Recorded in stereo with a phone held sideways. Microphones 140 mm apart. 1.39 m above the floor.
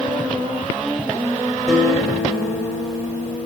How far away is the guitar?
About 2.5 m.